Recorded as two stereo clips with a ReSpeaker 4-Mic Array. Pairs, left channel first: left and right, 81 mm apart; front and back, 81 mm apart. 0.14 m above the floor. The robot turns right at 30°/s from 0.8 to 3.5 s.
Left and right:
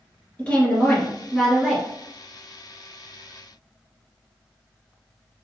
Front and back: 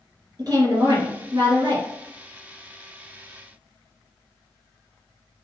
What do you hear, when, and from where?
0.4 s a woman speaking: 160° left, 1.9 m; by 1.9 s 165° right, 1.9 m